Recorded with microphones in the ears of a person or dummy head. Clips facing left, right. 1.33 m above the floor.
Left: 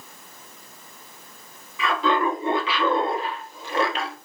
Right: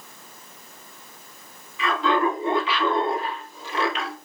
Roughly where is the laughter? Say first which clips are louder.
Even; left.